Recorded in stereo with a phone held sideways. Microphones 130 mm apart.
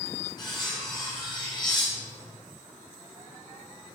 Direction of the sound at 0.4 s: 30° left (ahead or behind).